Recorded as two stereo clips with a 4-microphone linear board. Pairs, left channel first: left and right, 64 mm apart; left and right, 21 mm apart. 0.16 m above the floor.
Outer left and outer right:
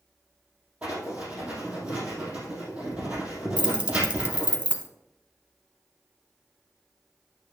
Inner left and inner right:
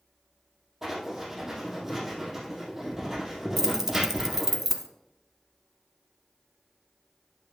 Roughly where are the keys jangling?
Centre.